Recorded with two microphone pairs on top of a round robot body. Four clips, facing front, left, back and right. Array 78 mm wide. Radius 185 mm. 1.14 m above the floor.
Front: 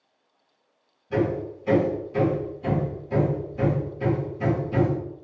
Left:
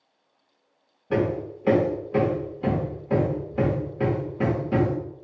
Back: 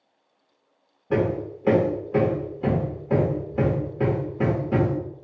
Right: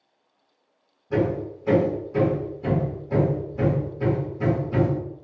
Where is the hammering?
140° left, 0.6 m.